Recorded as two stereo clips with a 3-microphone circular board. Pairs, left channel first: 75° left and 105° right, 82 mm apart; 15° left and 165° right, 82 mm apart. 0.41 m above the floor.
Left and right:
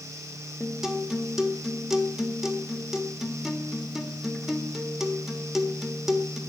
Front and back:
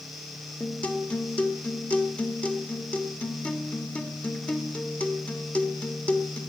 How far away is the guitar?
About 1.5 m.